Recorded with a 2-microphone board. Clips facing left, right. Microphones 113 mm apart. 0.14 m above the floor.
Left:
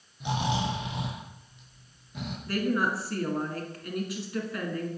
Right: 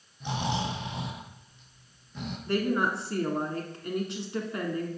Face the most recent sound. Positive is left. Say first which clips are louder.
# right 1 dB
turn(degrees=-25)  # may be behind; listen again after turning